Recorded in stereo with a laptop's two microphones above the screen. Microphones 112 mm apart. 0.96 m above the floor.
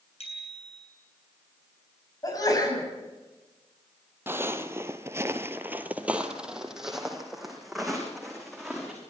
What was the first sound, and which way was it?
A bicycle bell, 65° left (ahead or behind).